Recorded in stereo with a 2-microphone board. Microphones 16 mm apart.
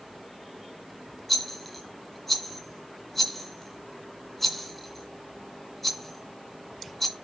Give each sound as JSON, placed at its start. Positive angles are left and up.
{"t": 1.3, "sound": "a rattle", "side_deg": 5, "distance_m": 1.8}